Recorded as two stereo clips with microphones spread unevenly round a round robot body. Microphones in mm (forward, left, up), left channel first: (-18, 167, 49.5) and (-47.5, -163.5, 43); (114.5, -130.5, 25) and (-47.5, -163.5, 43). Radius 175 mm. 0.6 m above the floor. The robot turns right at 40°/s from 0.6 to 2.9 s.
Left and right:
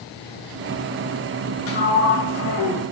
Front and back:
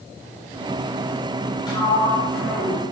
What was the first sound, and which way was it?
A sliding door, 60° left.